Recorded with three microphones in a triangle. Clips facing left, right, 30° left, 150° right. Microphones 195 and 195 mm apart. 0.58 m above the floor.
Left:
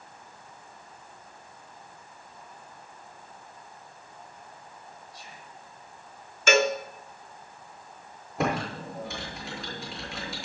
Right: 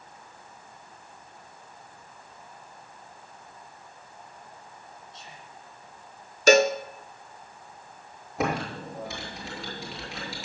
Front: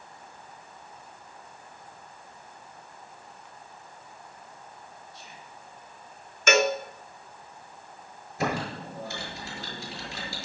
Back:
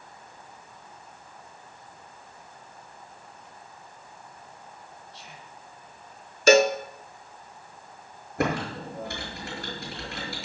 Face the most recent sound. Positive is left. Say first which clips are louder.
# even, back 2 dB
turn(degrees=180)